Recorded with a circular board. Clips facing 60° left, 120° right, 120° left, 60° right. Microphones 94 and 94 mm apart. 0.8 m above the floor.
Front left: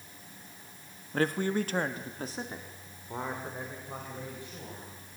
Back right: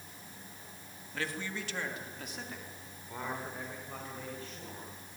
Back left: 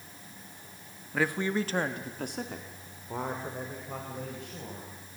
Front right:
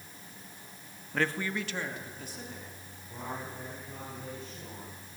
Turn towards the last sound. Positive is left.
turn(degrees=135)